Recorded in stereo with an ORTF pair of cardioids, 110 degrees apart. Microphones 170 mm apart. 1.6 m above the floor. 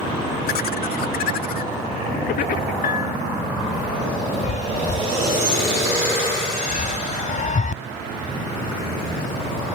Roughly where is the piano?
Ahead left.